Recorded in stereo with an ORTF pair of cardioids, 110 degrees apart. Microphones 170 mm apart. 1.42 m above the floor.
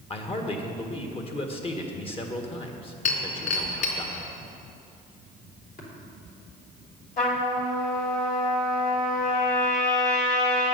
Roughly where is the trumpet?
Ahead left.